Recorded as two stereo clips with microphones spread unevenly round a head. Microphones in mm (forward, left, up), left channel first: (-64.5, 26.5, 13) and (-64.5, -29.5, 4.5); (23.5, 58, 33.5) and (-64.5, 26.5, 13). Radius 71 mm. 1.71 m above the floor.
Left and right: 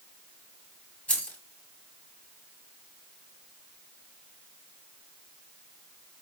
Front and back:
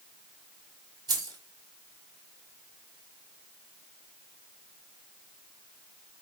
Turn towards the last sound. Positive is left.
turn(degrees=150)